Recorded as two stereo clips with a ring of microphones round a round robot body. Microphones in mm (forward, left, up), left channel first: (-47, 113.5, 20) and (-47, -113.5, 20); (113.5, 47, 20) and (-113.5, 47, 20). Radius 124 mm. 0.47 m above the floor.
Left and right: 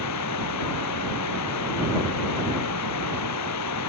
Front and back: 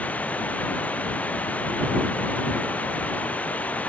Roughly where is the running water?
Left.